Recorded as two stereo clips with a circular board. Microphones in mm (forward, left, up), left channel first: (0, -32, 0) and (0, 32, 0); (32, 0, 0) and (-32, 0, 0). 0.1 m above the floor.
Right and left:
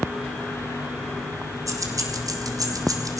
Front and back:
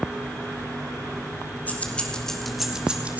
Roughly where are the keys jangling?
Ahead left.